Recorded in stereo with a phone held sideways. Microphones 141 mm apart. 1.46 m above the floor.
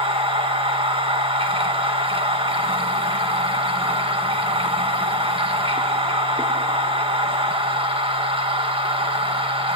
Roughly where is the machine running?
Right.